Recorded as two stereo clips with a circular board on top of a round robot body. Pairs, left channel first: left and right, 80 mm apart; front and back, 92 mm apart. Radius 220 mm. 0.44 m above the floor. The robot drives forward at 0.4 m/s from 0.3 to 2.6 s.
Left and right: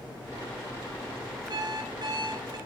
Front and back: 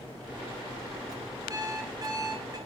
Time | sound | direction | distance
1.5 | an alarm clock | 125° right | 6 m